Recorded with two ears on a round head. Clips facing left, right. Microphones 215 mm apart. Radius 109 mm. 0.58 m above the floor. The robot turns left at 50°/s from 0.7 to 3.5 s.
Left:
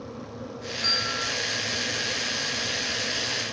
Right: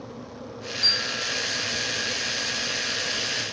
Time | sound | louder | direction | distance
0.8 | a bell | left 1 dB | 55° right (ahead or behind) | 2.0 m